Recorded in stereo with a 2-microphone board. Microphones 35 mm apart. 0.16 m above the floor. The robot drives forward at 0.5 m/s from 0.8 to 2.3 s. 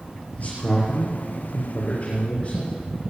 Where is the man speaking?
50° left (ahead or behind), 3.5 m; by 2.7 s 45° left (ahead or behind), 4 m.